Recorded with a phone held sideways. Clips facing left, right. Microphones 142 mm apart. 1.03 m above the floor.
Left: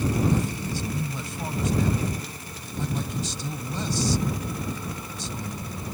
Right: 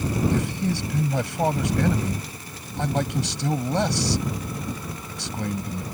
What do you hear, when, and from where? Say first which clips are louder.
0.3 s a man speaking: right 2 dB; 80° right